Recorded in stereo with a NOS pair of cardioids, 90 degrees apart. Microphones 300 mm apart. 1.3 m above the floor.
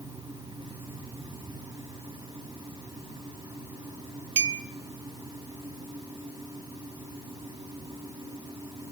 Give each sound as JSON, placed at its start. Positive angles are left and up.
{"t": 0.0, "sound": "a fan", "azimuth_deg": -15, "distance_m": 5.0}
{"t": 4.4, "sound": "a clink", "azimuth_deg": -60, "distance_m": 2.5}